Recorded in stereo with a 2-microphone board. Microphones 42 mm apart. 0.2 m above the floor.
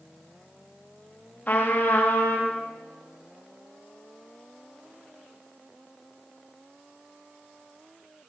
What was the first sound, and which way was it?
A trumpet, 40° left (ahead or behind).